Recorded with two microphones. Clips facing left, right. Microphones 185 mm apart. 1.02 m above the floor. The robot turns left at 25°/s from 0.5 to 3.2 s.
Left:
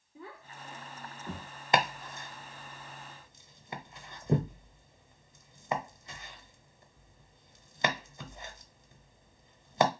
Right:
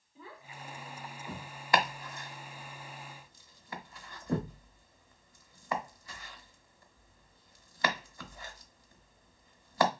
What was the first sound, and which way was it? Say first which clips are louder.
A child speaking: left 2 dB; 65° left (ahead or behind).